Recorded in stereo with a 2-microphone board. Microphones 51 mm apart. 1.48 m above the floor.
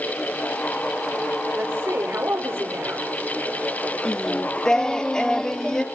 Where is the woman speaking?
45° right (ahead or behind), 4.5 m.